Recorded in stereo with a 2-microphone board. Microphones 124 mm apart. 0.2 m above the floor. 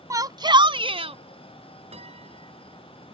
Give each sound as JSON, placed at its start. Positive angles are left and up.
{"t": 0.1, "sound": "a shout", "side_deg": -25}
{"t": 1.9, "sound": "a piano", "side_deg": -55}